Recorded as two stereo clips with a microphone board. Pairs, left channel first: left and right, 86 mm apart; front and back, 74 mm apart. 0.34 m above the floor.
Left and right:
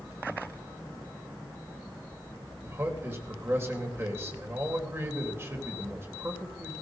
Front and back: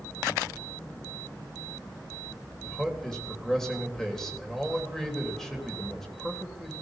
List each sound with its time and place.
2.6 s a man speaking: 75° right, 1.6 m